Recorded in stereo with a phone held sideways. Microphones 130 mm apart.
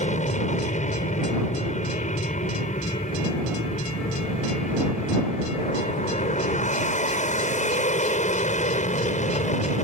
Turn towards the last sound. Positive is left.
turn(degrees=70)  # may be behind; listen again after turning